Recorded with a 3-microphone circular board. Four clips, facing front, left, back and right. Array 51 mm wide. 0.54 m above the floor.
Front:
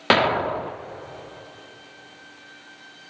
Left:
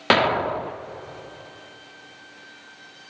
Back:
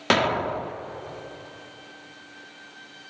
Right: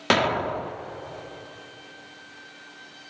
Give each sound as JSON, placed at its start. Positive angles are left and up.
{"t": 0.1, "sound": "an explosion", "azimuth_deg": 50, "distance_m": 0.5}